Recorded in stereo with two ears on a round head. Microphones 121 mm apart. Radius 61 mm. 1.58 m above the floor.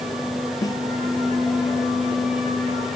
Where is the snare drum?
30° left (ahead or behind).